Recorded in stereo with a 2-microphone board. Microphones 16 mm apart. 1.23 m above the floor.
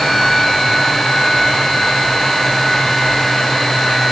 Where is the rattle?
No rattle in this recording.